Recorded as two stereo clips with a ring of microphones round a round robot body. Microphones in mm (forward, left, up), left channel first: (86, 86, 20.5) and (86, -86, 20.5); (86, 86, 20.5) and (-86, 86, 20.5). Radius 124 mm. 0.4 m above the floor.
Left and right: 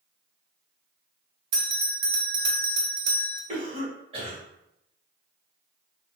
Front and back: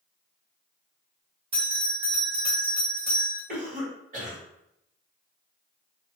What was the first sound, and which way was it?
A bell, 120° right.